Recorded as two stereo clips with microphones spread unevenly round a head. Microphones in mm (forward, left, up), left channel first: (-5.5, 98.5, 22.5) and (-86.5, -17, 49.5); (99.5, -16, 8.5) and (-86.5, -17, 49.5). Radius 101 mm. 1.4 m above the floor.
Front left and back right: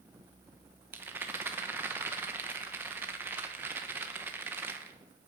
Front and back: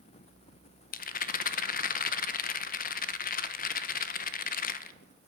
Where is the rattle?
50° right, 0.7 m.